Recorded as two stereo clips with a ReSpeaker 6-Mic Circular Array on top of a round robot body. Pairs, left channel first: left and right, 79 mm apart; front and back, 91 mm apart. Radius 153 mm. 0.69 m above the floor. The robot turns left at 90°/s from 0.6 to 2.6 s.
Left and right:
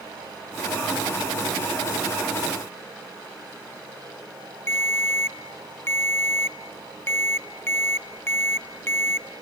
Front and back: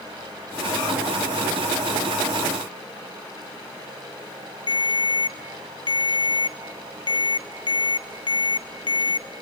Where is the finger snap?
I don't hear a finger snap.